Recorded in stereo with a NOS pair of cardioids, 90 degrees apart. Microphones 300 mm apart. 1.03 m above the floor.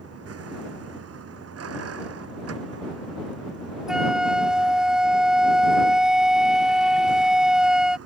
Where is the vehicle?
50° right.